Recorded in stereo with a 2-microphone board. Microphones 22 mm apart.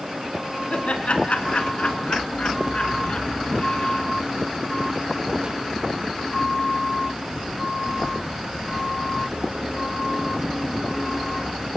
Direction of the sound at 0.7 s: 65° left (ahead or behind).